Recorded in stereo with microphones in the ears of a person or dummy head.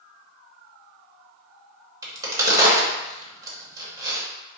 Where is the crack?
20° right (ahead or behind), 1.1 m.